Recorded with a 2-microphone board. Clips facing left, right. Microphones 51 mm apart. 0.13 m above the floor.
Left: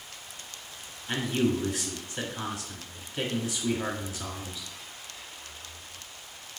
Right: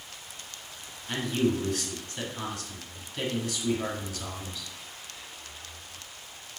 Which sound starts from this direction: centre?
A man speaking, at 1.1 s.